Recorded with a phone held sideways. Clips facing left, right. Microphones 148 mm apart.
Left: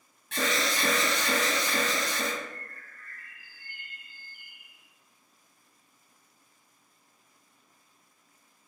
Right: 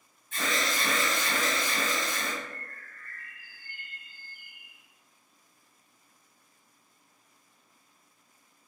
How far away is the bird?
About 0.8 m.